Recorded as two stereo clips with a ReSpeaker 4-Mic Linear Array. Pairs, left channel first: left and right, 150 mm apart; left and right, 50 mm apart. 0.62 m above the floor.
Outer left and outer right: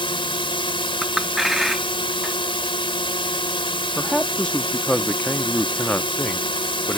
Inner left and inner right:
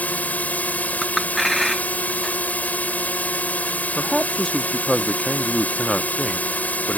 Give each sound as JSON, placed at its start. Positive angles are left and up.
{"t": 0.0, "sound": "a drone", "side_deg": 35}
{"t": 1.0, "sound": "a clink", "side_deg": 0}
{"t": 4.0, "sound": "a man speaking", "side_deg": 5}